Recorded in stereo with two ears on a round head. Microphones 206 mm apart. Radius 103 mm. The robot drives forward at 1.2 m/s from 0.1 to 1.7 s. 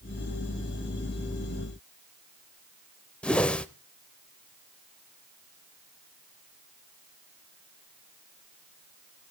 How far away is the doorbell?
No doorbell in this recording.